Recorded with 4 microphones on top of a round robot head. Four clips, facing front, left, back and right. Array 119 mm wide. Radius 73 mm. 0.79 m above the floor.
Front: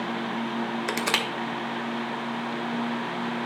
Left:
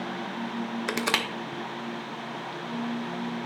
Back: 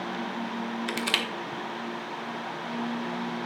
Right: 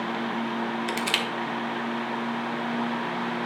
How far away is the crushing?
About 0.7 m.